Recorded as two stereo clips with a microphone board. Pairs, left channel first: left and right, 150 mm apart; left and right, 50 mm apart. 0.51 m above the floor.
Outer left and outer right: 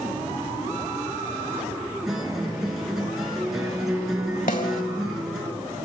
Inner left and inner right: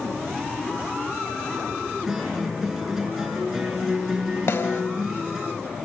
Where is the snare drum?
70° left (ahead or behind), 2.0 m.